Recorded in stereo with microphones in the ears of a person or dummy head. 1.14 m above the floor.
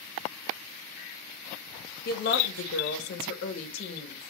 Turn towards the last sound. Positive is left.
turn(degrees=20)  # may be behind; listen again after turning